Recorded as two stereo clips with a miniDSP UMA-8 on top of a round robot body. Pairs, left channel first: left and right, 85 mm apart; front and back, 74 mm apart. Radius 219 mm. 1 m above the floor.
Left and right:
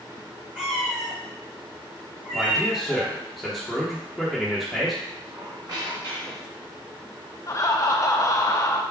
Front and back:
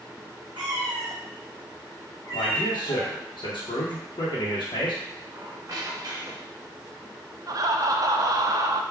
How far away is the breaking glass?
I don't hear breaking glass.